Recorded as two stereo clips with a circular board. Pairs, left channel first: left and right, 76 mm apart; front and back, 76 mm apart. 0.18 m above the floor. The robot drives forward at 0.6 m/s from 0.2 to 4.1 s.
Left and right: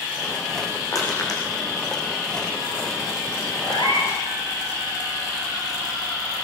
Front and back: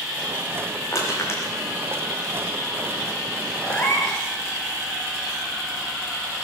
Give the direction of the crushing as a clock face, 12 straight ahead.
10 o'clock.